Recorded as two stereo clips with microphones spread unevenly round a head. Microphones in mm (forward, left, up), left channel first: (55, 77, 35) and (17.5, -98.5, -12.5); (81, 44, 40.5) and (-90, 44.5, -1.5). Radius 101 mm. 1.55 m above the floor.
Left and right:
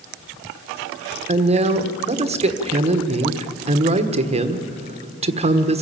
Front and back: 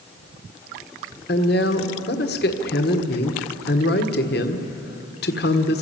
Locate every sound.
1.3 s a woman speaking: 45° right, 1.4 m